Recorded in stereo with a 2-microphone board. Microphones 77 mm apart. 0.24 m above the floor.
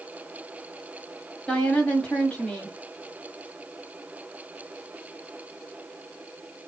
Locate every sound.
1.5 s a woman speaking: 15° left (ahead or behind), 1.5 m